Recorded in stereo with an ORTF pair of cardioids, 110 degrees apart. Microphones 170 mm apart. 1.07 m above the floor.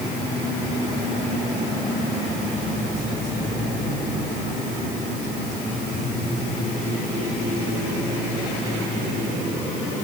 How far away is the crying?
No crying in this recording.